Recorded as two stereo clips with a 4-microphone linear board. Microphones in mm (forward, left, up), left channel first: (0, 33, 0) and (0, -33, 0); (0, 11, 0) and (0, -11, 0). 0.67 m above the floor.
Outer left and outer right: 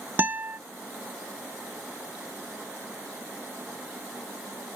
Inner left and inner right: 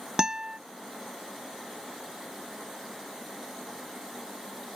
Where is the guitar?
35° right (ahead or behind).